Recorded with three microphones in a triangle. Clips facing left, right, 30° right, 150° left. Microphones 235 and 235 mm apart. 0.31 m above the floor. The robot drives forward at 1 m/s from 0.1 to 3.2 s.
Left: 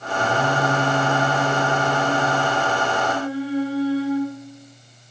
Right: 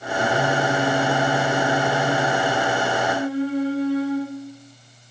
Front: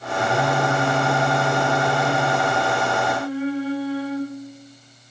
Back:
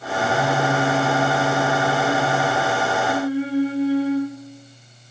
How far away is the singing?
About 4 m.